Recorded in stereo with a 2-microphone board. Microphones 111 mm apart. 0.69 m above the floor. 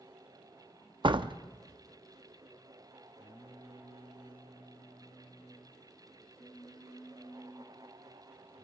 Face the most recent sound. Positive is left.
turn(degrees=50)  # may be behind; listen again after turning